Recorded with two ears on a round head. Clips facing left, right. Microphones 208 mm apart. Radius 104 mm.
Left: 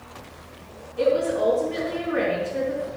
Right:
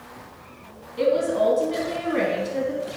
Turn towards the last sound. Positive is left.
turn(degrees=-55)  # may be behind; listen again after turning